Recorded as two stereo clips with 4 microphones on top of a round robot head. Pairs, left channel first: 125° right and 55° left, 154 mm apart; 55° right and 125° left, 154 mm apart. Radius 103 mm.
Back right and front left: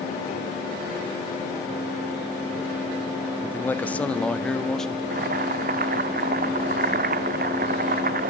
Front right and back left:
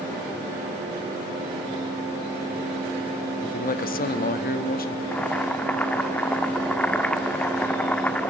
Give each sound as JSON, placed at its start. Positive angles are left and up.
{"t": 3.4, "sound": "a man speaking", "azimuth_deg": -55, "distance_m": 1.0}
{"t": 5.1, "sound": "boiling", "azimuth_deg": 30, "distance_m": 1.3}